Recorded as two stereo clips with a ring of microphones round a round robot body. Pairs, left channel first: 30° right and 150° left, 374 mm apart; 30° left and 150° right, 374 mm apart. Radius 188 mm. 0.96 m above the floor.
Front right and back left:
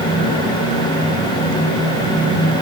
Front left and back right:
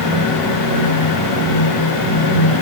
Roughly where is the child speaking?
No child speaking in this recording.